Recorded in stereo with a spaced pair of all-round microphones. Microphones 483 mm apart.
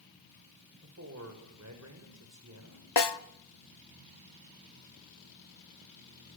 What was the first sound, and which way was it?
A man speaking, 35° right (ahead or behind).